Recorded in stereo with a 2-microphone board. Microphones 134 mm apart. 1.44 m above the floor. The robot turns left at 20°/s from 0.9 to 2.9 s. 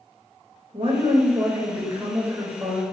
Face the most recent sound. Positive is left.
turn(degrees=180)